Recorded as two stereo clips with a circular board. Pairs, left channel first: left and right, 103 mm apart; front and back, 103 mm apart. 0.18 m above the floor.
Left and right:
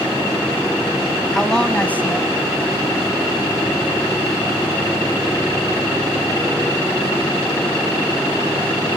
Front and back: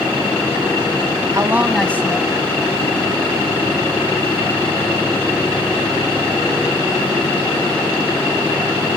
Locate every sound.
1.3 s a man speaking: 175° left, 1.2 m; by 3.4 s 15° left, 2.5 m